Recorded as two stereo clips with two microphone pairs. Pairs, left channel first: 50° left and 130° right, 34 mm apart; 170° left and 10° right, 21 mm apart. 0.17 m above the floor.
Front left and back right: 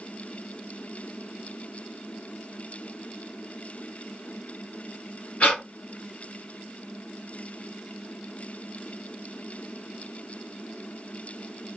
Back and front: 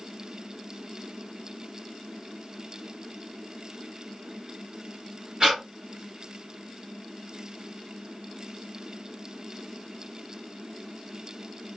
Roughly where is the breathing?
Ahead left.